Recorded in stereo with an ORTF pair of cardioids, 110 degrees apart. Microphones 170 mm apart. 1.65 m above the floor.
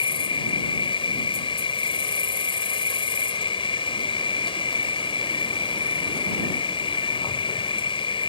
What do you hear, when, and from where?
0.0 s an insect: 30° left